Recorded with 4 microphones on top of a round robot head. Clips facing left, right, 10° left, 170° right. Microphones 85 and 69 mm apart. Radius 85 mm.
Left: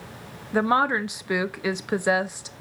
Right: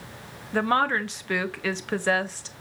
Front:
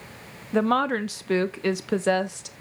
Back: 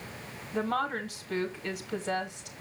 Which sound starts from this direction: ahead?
A woman speaking, at 0.5 s.